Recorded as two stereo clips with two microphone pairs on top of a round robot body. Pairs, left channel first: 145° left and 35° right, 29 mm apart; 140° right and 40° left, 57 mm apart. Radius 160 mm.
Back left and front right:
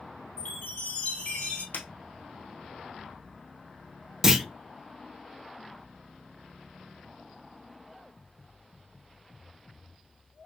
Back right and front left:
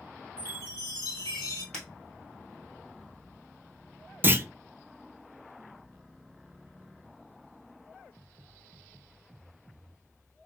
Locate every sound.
0.4 s a chime: 170° right, 0.8 m
1.7 s breaking glass: 135° left, 1.5 m
4.2 s a clunk: 65° left, 0.5 m